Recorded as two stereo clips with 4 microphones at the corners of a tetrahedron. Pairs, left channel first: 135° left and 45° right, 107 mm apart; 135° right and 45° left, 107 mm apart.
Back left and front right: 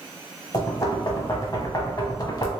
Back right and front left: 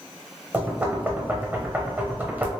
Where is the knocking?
115° left, 0.8 m.